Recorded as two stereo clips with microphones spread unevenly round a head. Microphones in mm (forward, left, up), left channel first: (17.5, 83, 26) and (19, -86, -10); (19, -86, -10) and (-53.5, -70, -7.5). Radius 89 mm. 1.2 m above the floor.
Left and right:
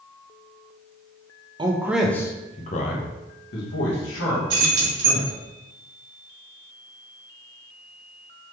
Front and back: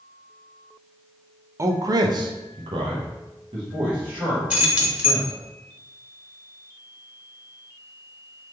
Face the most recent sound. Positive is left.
turn(degrees=-120)